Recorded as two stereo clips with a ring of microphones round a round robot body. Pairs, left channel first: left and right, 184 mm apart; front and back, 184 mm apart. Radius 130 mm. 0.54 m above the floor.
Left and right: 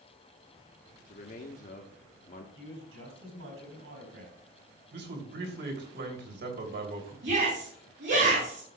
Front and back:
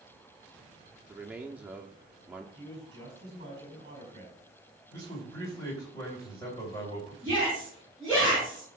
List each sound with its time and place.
1.1 s a man speaking: 100° left, 0.9 m
2.5 s a man speaking: 110° right, 4.5 m
4.9 s a man speaking: 75° right, 3 m
7.2 s a shout: 75° right, 5 m